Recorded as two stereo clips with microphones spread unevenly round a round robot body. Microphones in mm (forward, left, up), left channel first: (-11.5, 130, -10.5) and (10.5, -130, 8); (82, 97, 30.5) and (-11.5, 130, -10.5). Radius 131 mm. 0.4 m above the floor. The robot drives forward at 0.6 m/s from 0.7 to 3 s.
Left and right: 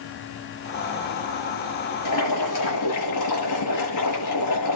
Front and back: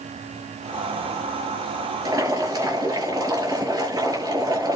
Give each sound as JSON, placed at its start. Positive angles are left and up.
{"t": 2.0, "sound": "boiling", "azimuth_deg": 110, "distance_m": 9.0}